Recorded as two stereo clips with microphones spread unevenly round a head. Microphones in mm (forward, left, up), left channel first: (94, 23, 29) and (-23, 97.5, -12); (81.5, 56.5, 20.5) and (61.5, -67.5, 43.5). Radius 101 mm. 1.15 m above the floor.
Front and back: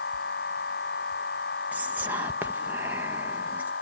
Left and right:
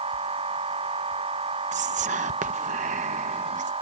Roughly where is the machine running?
Ahead right.